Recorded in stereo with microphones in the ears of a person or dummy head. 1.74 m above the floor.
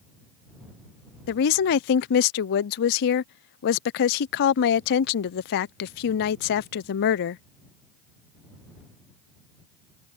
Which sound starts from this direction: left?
A woman speaking, at 1.3 s.